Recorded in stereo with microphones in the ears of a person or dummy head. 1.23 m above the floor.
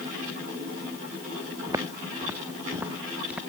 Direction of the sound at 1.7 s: 20° right (ahead or behind).